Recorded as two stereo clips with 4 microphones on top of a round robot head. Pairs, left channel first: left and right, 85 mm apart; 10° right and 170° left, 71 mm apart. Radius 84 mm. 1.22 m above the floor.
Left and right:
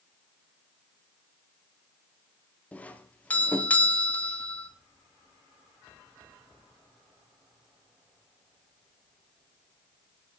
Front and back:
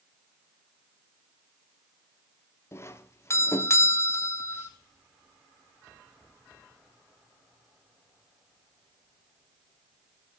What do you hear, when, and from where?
2.7 s a doorbell: 25° left, 1.2 m